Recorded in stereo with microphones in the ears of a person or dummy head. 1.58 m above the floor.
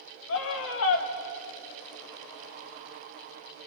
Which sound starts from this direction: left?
A scream, at 0.3 s.